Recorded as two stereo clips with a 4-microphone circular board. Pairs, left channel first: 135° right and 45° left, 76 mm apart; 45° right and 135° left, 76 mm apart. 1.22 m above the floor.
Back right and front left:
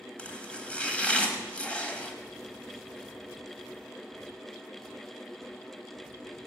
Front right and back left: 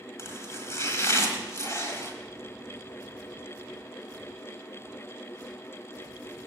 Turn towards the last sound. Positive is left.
turn(degrees=-70)